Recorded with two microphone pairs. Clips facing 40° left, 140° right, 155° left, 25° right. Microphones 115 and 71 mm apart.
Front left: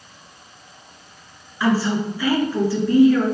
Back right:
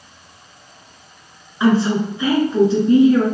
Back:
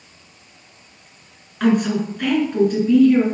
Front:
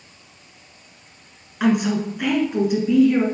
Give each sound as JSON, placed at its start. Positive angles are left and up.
{"t": 1.6, "sound": "a woman speaking", "azimuth_deg": -95, "distance_m": 1.8}